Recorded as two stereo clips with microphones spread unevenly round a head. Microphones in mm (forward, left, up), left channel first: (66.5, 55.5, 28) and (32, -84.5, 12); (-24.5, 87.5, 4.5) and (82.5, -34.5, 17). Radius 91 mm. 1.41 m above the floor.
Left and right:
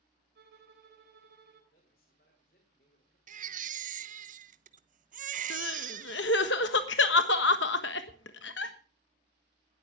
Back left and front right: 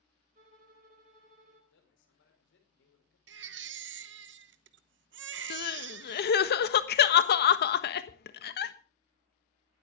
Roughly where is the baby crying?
Right.